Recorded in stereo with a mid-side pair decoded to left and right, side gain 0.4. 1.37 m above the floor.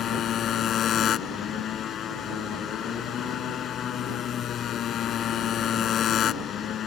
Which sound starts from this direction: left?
A motorcycle, at 0.0 s.